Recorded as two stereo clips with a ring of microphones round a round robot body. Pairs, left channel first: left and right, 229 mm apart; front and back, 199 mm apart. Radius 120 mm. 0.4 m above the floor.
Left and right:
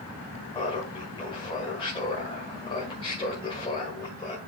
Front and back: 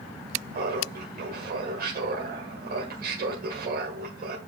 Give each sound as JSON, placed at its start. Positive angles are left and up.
{"t": 0.5, "sound": "laughter", "azimuth_deg": 155, "distance_m": 1.8}